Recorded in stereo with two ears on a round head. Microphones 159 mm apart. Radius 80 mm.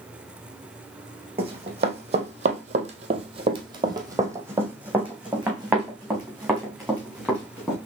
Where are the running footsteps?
35° right (ahead or behind), 1.3 m; by 7.8 s 5° left (ahead or behind), 3 m.